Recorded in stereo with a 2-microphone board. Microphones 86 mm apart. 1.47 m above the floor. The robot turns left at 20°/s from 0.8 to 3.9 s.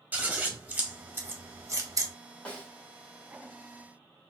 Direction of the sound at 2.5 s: 15° left (ahead or behind).